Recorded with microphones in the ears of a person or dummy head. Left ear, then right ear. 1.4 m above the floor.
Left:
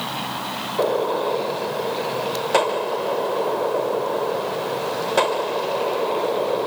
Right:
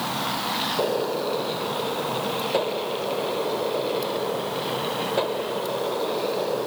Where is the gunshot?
35° left (ahead or behind).